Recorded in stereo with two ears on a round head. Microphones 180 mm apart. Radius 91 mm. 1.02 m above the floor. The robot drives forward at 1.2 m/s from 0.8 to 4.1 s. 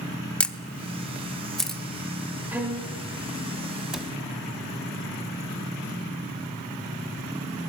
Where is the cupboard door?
5° right (ahead or behind), 1.4 m.